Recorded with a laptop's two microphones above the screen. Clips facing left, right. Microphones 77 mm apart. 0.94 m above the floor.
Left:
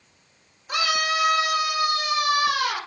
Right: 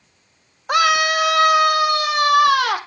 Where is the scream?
65° right (ahead or behind), 1.5 m; by 2.8 s 75° right (ahead or behind), 3 m.